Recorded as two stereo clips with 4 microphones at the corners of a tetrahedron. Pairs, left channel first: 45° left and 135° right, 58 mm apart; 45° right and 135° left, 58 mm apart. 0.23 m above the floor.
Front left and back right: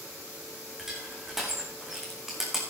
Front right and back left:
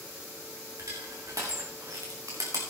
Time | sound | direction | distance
0.8 | crushing | 140° left | 3.5 m